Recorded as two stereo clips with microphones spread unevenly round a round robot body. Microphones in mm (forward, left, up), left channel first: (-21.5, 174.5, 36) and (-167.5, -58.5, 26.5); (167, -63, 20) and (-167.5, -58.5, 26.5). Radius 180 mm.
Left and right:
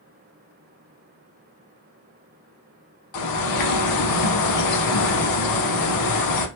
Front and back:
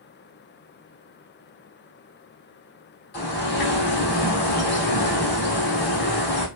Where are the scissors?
I don't hear scissors.